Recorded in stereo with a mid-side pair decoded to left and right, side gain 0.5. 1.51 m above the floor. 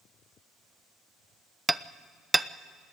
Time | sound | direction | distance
1.7 | hammering | 10° right | 0.6 m